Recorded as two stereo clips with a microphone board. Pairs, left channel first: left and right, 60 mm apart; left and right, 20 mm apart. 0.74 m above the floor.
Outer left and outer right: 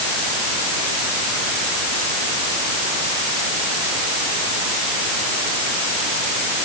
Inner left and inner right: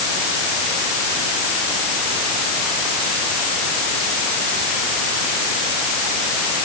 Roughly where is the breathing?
No breathing in this recording.